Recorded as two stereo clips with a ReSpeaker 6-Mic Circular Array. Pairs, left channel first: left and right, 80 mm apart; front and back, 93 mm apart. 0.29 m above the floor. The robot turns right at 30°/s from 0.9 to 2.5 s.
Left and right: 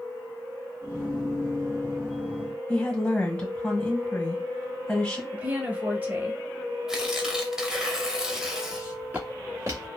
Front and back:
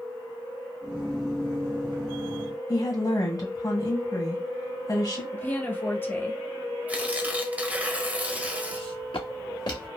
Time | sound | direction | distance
2.7 | a woman speaking | 15° left | 1.8 m
5.3 | a woman speaking | 45° right | 1.1 m
6.9 | tearing paper | 150° right | 0.7 m
8.7 | footsteps | 10° right | 1.8 m